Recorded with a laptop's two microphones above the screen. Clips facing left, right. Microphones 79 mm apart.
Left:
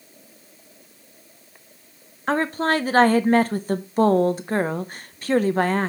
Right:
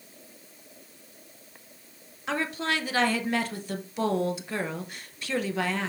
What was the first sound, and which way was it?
A woman speaking, 45° left (ahead or behind).